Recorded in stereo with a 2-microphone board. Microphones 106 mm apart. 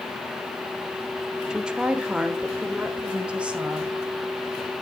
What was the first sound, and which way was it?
A woman speaking, 5° right (ahead or behind).